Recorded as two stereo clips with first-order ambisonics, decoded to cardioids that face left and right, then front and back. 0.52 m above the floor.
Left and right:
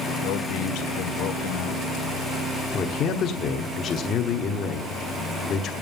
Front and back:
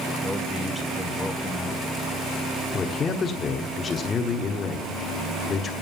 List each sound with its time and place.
0.2 s a man speaking: 85° left, 1.4 m
2.7 s a man speaking: 55° left, 1.1 m